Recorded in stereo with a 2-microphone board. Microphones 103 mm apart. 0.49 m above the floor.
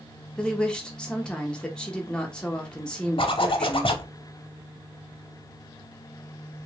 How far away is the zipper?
About 0.5 m.